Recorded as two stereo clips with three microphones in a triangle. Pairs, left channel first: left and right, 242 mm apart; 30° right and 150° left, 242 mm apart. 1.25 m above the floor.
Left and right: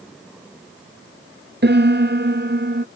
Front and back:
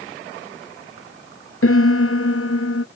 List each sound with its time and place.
1.6 s a piano: 50° right